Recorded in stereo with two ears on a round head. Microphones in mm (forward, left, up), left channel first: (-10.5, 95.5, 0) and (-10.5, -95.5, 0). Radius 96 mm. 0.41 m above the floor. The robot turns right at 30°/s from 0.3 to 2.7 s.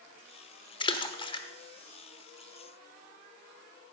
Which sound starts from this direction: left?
A splash, at 0.8 s.